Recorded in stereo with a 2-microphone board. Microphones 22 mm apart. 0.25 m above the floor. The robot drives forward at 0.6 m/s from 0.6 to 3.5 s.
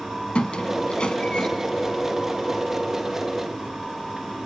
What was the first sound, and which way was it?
A squeak, 60° left (ahead or behind).